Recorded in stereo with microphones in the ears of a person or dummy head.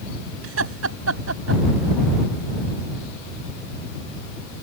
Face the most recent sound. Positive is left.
turn(degrees=-90)